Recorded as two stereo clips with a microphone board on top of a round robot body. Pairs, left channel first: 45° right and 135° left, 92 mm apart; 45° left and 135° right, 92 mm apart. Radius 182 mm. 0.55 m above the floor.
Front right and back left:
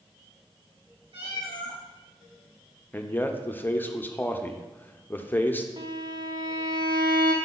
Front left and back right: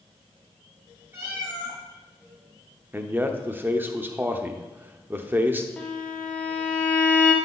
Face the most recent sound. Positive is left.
turn(degrees=120)